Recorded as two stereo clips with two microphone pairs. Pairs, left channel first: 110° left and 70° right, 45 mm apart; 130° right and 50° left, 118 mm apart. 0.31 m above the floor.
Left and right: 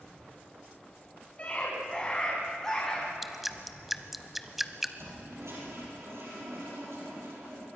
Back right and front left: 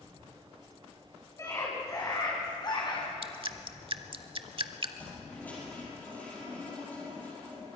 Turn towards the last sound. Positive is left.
turn(degrees=-55)